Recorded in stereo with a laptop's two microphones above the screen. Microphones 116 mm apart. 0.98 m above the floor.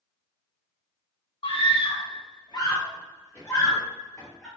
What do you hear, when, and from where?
1.4 s a scream: 50° left (ahead or behind), 0.8 m; by 4.5 s 15° left (ahead or behind), 1.6 m